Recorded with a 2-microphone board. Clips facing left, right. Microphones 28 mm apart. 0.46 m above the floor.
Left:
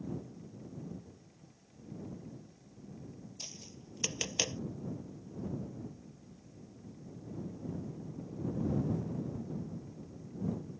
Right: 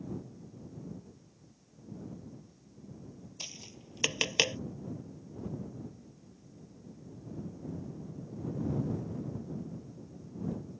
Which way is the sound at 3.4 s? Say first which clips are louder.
Right 6 dB; 35° right (ahead or behind).